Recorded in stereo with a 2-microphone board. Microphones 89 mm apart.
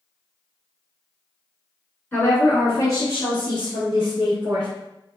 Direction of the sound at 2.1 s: 20° left (ahead or behind).